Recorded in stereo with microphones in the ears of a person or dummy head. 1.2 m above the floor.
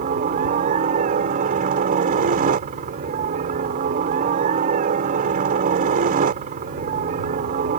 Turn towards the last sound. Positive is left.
turn(degrees=-45)  # may be behind; listen again after turning